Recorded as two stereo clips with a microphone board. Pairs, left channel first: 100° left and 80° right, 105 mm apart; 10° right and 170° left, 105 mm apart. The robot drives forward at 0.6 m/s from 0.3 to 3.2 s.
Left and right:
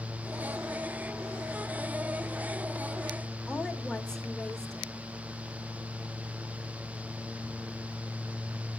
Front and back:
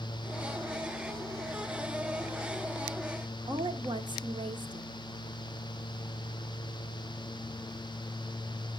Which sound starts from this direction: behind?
A woman speaking, at 3.5 s.